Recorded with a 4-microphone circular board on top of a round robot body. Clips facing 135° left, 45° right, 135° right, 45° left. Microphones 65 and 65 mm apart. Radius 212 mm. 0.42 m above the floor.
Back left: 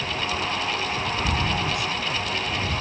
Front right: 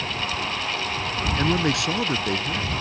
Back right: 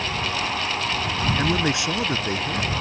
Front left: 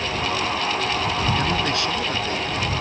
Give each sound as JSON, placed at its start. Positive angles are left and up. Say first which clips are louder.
{"t": 1.4, "sound": "a man speaking", "louder": "front right 3 dB, even", "azimuth_deg": -60}